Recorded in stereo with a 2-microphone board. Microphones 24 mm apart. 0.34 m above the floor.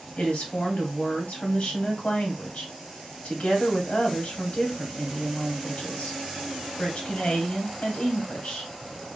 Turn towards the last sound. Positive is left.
turn(degrees=55)  # may be behind; listen again after turning